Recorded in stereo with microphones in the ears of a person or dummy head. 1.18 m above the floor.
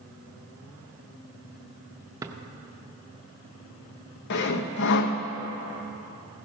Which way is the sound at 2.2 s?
20° right (ahead or behind).